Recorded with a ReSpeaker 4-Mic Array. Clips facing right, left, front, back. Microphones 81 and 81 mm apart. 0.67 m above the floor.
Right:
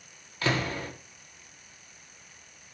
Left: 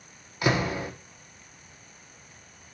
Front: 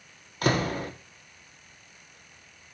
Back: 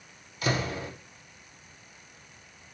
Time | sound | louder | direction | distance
0.4 | a door slam | left 3 dB, front 4 dB | 20° left | 0.9 m